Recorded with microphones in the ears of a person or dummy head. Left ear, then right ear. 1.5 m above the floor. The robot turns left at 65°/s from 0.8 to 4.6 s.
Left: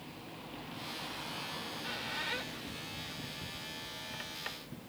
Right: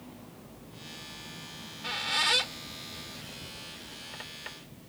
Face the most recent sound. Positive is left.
turn(degrees=20)  # may be behind; listen again after turning